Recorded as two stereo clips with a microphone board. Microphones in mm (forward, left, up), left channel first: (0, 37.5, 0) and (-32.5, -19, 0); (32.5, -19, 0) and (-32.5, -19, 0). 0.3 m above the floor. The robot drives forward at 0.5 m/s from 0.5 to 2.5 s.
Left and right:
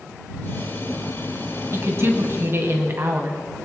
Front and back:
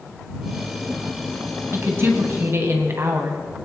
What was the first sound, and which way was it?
A woman speaking, 145° right.